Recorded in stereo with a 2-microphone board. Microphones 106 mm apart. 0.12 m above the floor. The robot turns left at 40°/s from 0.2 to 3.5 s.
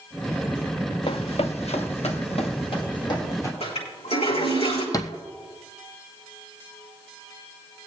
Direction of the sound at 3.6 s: 80° left.